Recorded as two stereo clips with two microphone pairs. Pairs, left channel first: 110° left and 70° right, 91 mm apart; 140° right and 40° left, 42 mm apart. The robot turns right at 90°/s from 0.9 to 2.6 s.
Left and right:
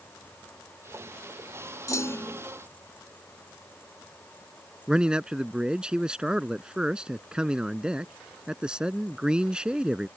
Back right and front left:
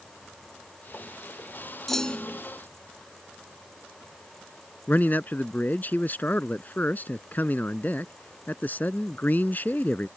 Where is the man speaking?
150° right.